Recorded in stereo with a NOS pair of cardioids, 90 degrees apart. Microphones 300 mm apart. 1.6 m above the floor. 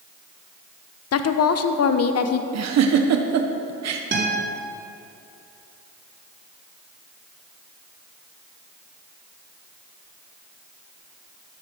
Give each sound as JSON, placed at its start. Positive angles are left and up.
{"t": 1.1, "sound": "a woman speaking", "azimuth_deg": 55, "distance_m": 1.1}
{"t": 2.5, "sound": "a giggle", "azimuth_deg": -60, "distance_m": 1.4}
{"t": 4.1, "sound": "a guitar", "azimuth_deg": -35, "distance_m": 3.5}